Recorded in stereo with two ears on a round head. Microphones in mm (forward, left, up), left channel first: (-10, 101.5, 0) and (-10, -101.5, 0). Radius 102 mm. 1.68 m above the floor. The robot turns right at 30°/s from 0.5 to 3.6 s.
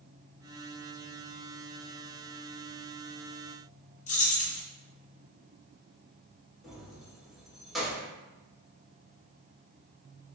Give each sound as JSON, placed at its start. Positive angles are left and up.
{"t": 4.1, "sound": "keys jangling", "side_deg": 35, "distance_m": 1.0}
{"t": 6.6, "sound": "keys jangling", "side_deg": 0, "distance_m": 0.8}